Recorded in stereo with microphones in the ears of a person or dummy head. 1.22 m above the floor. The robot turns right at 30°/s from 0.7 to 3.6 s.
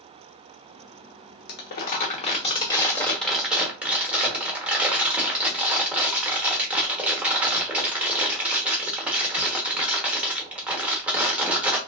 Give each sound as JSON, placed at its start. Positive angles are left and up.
{"t": 1.5, "sound": "crumpling", "azimuth_deg": 125, "distance_m": 0.9}